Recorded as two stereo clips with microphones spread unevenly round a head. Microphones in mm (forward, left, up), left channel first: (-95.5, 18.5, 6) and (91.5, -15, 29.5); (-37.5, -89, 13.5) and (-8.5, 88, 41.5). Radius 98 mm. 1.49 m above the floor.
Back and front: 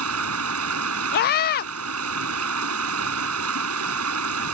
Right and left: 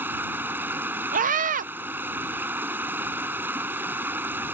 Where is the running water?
Straight ahead.